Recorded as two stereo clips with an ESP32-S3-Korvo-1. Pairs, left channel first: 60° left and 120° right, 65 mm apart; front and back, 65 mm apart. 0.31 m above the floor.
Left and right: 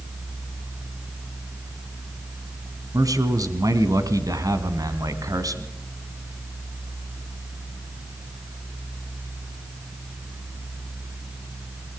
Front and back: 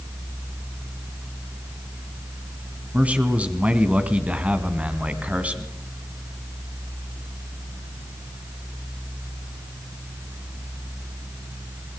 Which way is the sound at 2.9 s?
110° right.